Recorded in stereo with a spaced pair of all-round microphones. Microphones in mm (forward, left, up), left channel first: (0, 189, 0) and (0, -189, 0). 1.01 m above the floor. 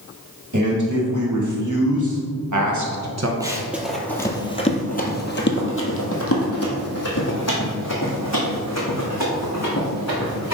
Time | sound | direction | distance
0.5 | a man speaking | 50° right (ahead or behind) | 2 m
3.4 | running footsteps | 10° right (ahead or behind) | 1.1 m